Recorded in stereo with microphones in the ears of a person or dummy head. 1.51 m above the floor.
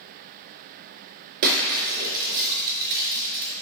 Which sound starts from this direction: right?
Breaking glass, at 1.4 s.